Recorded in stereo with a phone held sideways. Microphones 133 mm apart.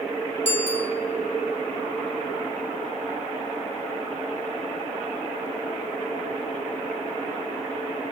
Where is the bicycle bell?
60° right (ahead or behind), 3.5 m.